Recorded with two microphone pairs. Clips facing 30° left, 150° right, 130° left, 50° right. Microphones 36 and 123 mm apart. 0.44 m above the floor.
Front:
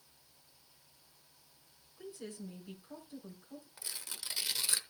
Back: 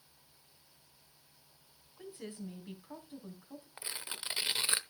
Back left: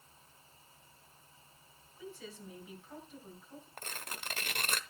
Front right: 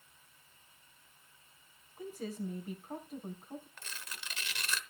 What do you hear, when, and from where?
2.0 s a woman speaking: 90° right, 3.5 m
3.8 s tearing paper: 155° left, 0.8 m